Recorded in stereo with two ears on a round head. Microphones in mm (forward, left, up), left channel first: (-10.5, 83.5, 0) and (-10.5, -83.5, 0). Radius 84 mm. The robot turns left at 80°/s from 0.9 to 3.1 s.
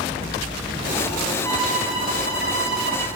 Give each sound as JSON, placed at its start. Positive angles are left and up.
{"t": 1.4, "sound": "a violin", "azimuth_deg": 20, "distance_m": 4.5}